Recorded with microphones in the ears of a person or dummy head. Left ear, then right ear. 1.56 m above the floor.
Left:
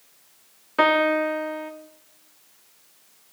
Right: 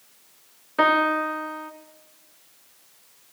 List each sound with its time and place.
0.8 s a piano: 10° left (ahead or behind), 0.8 m